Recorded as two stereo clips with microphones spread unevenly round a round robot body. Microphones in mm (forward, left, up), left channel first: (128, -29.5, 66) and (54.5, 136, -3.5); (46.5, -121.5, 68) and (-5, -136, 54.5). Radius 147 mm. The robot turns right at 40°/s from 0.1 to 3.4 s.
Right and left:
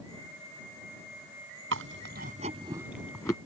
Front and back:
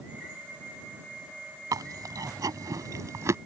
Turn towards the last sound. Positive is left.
turn(degrees=-130)